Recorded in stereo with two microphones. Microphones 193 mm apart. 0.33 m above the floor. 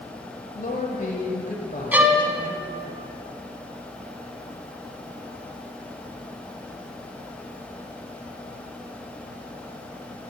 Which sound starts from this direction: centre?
A violin, at 1.9 s.